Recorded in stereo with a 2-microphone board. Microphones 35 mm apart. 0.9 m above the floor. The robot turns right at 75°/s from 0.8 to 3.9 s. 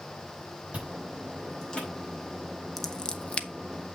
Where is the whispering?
I don't hear whispering.